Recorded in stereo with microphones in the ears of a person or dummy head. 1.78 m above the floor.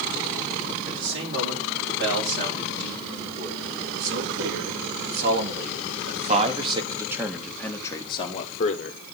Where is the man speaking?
70° right (ahead or behind), 4.5 m; by 9.0 s 50° left (ahead or behind), 1.3 m.